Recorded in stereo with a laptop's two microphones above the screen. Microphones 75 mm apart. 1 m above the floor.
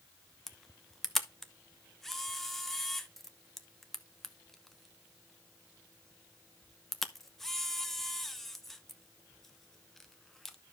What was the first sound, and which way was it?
A camera shutter, 5° left (ahead or behind).